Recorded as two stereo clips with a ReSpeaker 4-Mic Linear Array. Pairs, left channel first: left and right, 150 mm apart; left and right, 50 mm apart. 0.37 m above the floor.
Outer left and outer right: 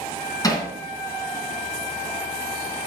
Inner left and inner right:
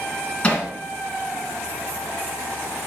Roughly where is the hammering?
Left.